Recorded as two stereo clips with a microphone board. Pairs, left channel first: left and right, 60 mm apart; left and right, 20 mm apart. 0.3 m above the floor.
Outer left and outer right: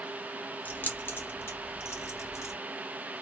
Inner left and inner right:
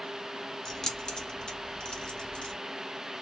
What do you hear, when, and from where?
0.7 s keys jangling: 30° left (ahead or behind), 0.7 m; by 2.5 s 55° left (ahead or behind), 1.5 m